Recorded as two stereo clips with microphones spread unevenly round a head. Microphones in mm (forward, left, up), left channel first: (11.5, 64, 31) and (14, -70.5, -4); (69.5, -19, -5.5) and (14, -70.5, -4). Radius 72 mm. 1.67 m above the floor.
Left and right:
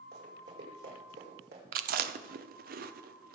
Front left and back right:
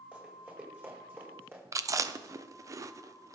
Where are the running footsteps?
70° right, 5.5 m; by 1.6 s 80° right, 5.5 m.